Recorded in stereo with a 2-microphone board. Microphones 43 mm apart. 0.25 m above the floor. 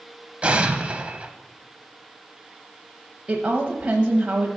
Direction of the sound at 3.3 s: 25° right (ahead or behind).